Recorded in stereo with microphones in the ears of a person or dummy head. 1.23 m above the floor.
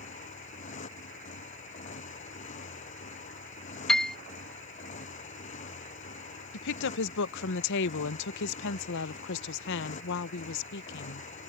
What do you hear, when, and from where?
0.0 s a motorcycle: 40° left (ahead or behind)
3.9 s a piano: 5° left (ahead or behind)
6.5 s a woman speaking: 65° left (ahead or behind)